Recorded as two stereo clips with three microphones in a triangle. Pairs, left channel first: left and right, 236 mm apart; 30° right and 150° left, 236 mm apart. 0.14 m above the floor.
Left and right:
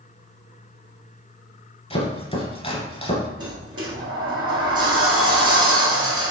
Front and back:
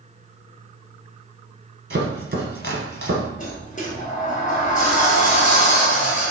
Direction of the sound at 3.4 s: 85° right.